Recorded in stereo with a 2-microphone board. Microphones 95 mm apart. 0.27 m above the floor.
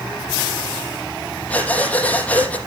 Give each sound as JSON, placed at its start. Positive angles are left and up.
{"t": 1.5, "sound": "breathing", "side_deg": 15, "distance_m": 5.0}